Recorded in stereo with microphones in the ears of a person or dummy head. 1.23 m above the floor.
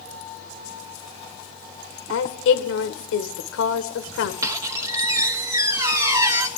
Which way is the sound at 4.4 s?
15° right (ahead or behind).